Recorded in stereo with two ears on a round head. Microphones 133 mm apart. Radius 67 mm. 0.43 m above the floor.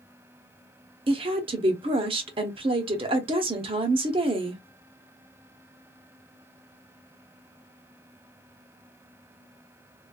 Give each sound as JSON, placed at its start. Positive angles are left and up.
{"t": 1.1, "sound": "a woman speaking", "side_deg": -35, "distance_m": 0.8}